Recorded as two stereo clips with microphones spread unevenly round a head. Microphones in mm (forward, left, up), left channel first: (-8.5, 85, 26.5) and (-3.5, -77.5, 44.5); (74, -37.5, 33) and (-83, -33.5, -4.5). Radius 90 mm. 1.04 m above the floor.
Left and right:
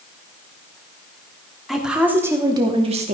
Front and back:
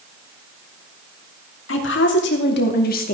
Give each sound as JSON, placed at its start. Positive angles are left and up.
{"t": 1.7, "sound": "a woman speaking", "azimuth_deg": 0, "distance_m": 3.0}